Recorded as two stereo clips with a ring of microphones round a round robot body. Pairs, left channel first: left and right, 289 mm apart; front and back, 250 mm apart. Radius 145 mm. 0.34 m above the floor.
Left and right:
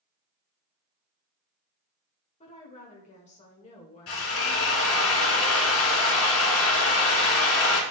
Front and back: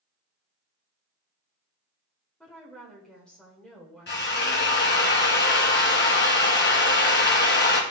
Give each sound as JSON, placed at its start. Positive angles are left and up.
{"t": 2.4, "sound": "a woman speaking", "azimuth_deg": 80, "distance_m": 1.3}
{"t": 4.1, "sound": "a drill", "azimuth_deg": 45, "distance_m": 1.8}